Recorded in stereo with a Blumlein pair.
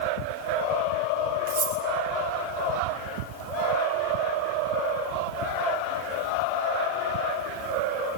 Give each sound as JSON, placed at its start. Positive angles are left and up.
{"t": 1.5, "sound": "cutlery clinking", "azimuth_deg": -60, "distance_m": 2.5}